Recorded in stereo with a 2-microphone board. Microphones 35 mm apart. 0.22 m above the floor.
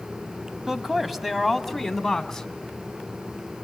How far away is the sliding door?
No sliding door in this recording.